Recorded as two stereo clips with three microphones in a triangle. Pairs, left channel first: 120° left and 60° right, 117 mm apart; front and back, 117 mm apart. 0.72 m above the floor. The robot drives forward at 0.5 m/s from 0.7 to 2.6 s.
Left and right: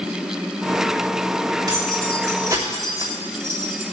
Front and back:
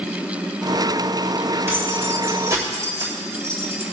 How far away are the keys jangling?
About 3 m.